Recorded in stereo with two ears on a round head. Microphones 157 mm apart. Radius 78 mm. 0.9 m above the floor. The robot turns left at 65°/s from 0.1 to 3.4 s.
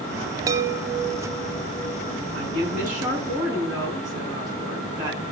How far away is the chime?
About 0.8 m.